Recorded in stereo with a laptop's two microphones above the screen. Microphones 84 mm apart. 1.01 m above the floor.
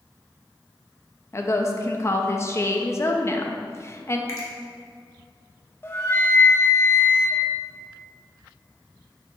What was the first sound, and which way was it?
A woman speaking, 35° left (ahead or behind).